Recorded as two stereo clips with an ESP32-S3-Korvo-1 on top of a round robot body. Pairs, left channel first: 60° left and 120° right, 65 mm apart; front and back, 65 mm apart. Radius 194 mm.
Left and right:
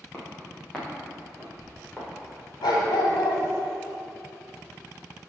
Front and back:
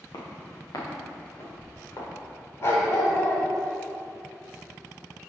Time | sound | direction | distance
0.1 | footsteps | 10° right | 2.5 m
2.6 | a dog barking | 50° left | 1.9 m